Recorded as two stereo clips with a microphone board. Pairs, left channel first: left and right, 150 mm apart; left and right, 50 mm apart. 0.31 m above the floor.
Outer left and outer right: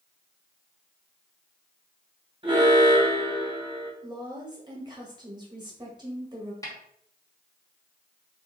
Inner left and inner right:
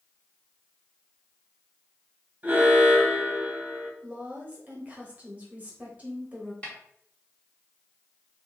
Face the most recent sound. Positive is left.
turn(degrees=25)  # may be behind; listen again after turning